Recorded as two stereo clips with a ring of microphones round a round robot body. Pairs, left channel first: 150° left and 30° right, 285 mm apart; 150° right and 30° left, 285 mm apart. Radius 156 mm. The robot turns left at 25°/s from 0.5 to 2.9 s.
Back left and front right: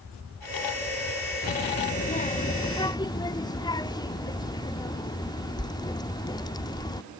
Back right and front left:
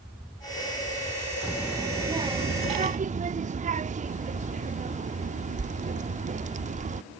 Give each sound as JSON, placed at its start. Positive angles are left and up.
{"t": 1.4, "sound": "a child speaking", "azimuth_deg": 120}